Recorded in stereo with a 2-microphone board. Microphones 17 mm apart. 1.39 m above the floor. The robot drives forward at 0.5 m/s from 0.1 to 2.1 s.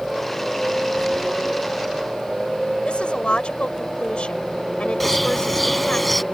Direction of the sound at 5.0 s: 10° left (ahead or behind).